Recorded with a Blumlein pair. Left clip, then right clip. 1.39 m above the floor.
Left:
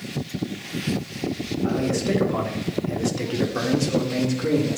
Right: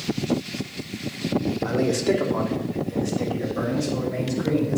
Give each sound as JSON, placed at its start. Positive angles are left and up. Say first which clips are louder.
{"t": 1.6, "sound": "a man speaking", "louder": "right 1 dB", "azimuth_deg": -15, "distance_m": 1.5}